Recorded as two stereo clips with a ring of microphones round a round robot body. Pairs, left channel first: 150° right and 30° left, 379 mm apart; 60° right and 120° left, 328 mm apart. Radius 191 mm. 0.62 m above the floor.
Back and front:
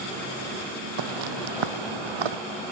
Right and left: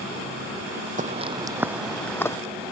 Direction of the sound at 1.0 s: 55° left.